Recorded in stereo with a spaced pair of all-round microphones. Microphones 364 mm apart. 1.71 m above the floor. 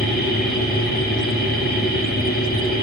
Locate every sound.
0.0 s a machine running: 25° left (ahead or behind), 1.4 m